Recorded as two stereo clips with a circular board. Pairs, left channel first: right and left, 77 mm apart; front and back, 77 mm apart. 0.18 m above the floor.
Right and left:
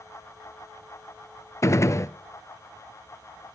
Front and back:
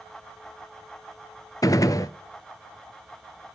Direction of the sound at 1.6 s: 40° right.